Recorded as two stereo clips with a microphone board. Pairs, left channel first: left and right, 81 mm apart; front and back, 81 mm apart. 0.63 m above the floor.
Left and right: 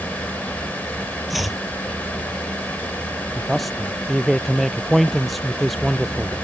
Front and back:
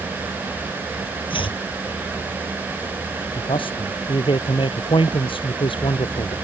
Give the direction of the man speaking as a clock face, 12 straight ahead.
12 o'clock.